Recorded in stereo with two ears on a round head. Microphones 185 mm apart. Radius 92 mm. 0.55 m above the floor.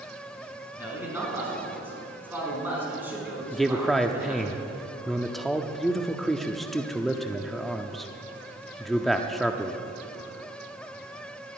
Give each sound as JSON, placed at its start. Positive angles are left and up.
{"t": 0.8, "sound": "a man speaking", "side_deg": -10, "distance_m": 5.0}
{"t": 3.5, "sound": "a man speaking", "side_deg": 0, "distance_m": 0.6}